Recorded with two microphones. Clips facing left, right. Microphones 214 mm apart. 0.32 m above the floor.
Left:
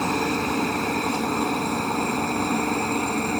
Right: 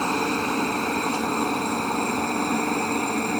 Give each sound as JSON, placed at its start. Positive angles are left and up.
{"t": 0.0, "sound": "a helicopter", "side_deg": 5}